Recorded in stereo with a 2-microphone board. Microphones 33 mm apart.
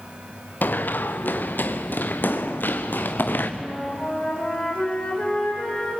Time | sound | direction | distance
0.6 | running footsteps | 70° left (ahead or behind) | 1.5 m
3.6 | a flute | 35° left (ahead or behind) | 6.5 m